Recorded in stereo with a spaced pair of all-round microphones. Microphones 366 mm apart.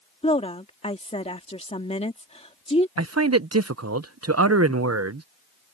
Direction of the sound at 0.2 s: 15° left (ahead or behind).